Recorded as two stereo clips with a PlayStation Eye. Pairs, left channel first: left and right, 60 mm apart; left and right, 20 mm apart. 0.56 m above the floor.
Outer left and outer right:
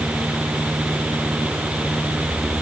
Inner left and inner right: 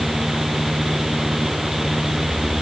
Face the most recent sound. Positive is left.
No sound to turn to.